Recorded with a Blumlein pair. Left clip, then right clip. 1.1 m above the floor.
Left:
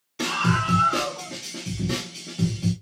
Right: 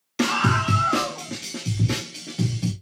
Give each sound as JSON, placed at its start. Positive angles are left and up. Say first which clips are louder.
{"t": 0.2, "sound": "a scream", "louder": "right 2 dB", "azimuth_deg": -60, "distance_m": 1.4}